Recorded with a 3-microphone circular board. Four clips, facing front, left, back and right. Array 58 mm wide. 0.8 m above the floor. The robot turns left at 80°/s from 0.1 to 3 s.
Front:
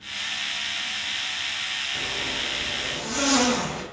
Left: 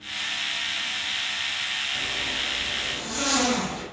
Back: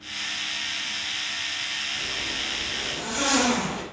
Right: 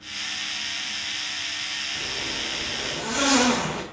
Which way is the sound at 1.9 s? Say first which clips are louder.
Left 2 dB, front 2 dB; straight ahead.